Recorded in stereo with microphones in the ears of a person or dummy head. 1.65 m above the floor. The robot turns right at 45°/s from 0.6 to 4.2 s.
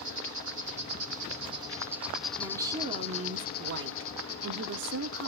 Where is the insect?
70° right, 1.3 m; by 5.3 s 90° left, 1.3 m.